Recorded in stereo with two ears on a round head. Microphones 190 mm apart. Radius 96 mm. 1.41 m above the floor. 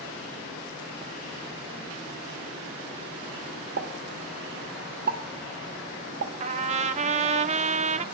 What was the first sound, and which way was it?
A pop, 50° right (ahead or behind).